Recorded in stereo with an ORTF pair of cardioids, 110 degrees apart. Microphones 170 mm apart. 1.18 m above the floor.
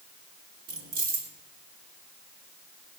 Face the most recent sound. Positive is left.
turn(degrees=-60)